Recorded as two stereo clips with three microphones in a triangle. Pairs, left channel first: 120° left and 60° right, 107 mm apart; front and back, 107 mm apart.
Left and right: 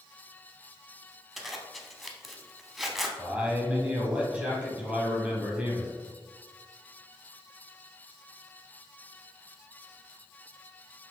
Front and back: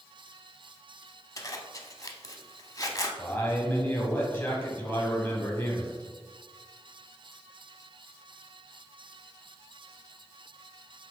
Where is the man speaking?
10° right, 1.0 m.